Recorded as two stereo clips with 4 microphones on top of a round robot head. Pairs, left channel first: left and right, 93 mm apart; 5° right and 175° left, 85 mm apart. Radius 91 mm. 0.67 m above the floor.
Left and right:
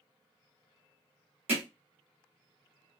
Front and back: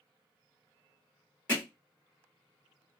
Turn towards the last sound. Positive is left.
turn(degrees=-85)